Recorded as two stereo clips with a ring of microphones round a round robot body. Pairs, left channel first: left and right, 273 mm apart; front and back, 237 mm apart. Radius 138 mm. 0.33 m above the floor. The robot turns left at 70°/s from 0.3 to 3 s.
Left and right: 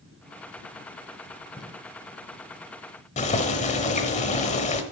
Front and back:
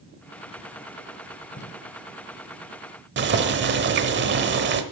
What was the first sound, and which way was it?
Tape being pulled, 25° left.